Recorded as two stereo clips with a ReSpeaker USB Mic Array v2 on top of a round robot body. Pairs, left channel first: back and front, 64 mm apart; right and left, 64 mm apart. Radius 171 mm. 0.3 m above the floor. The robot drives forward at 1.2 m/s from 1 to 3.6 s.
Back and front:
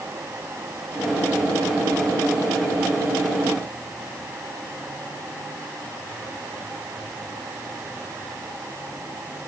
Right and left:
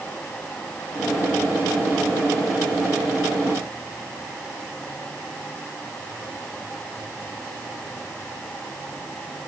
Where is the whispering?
No whispering in this recording.